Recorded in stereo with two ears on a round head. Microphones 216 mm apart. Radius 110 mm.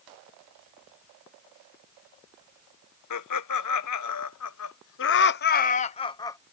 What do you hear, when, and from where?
3.1 s laughter: 85° left; by 6.4 s 10° left (ahead or behind)